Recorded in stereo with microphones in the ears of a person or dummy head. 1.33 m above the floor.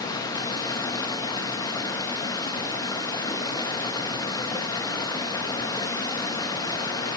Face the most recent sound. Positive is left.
turn(degrees=25)  # may be behind; listen again after turning